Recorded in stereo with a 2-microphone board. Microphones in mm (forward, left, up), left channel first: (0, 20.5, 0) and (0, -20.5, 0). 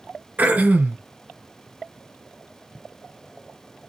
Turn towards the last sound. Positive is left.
turn(degrees=-40)  # may be behind; listen again after turning